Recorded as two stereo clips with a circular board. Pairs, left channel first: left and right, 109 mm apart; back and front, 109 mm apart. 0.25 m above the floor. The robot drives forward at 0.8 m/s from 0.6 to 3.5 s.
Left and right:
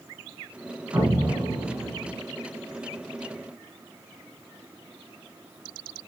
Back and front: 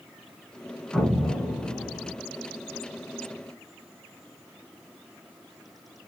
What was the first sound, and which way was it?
An explosion, 95° right.